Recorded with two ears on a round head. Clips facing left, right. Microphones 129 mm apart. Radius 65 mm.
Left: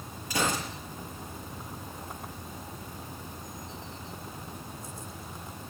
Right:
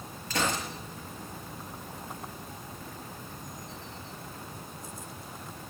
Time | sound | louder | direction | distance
0.3 | a gunshot | left 1 dB | 10° left (ahead or behind) | 5.5 m